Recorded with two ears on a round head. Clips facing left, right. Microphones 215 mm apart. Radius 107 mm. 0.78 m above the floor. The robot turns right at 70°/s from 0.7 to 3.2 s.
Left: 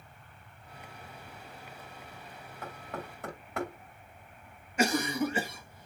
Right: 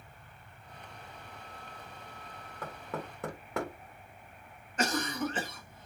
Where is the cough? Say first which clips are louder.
Left 4 dB; 10° left (ahead or behind), 0.8 m.